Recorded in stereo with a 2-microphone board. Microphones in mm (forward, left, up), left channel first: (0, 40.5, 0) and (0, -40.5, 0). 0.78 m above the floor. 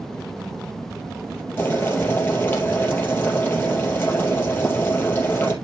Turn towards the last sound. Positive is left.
turn(degrees=25)  # may be behind; listen again after turning